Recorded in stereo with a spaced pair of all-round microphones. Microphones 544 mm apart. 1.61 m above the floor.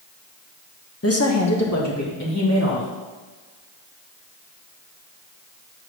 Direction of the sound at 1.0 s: 25° left (ahead or behind).